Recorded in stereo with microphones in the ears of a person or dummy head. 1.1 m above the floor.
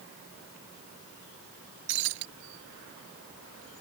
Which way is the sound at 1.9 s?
60° right (ahead or behind).